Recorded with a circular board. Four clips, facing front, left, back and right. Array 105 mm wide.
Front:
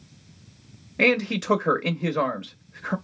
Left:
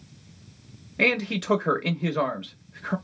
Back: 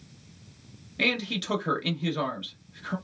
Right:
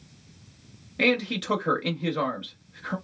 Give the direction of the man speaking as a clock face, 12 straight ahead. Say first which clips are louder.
Right 1 dB, front 8 dB; 11 o'clock.